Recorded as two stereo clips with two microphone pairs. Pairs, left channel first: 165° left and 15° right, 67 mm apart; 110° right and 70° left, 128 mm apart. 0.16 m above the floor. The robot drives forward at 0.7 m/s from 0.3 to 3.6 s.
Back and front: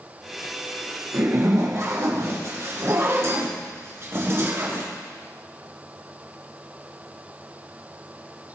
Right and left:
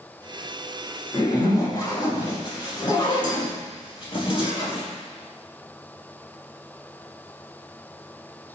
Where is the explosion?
No explosion in this recording.